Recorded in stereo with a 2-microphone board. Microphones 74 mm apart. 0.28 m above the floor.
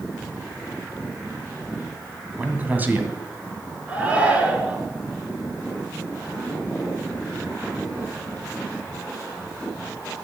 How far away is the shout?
About 4 m.